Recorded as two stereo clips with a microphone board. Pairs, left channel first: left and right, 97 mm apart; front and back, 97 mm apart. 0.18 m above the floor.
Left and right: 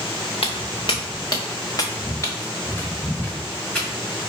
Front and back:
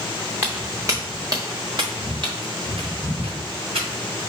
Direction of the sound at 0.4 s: 110° left.